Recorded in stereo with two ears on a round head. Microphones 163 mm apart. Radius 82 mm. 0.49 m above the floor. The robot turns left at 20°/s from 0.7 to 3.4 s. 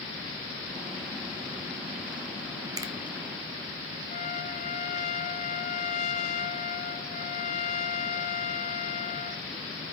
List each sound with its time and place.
2.8 s a finger snap: 20° right (ahead or behind), 1.2 m
4.1 s a trumpet: 45° left (ahead or behind), 0.9 m